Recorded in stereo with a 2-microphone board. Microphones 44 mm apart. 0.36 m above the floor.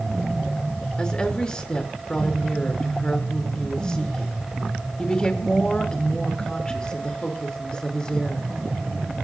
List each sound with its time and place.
1.0 s a woman speaking: 15° left (ahead or behind), 4.5 m